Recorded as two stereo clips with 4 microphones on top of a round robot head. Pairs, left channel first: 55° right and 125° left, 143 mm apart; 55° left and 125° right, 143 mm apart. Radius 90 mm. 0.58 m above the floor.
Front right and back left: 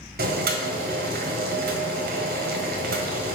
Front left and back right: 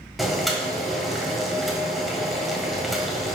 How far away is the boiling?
About 1.7 m.